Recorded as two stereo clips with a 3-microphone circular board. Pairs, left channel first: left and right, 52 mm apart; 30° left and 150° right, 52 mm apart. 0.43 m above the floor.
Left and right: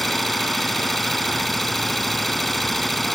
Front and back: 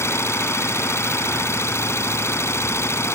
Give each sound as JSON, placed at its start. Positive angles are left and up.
{"t": 0.0, "sound": "an engine running", "azimuth_deg": 5}